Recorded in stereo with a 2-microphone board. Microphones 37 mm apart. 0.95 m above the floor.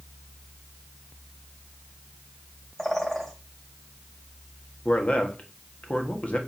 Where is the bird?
10° left (ahead or behind), 1.8 m.